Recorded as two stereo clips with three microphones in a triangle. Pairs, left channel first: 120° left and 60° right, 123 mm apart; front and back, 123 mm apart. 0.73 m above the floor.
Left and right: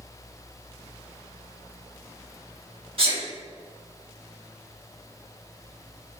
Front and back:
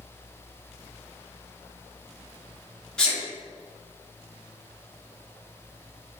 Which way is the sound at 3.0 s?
80° right.